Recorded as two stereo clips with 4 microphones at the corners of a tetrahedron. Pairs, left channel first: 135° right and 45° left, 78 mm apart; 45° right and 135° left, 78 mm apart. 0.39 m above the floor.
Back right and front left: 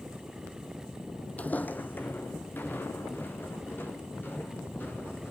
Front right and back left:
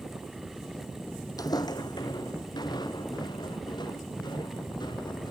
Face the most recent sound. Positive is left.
turn(degrees=-70)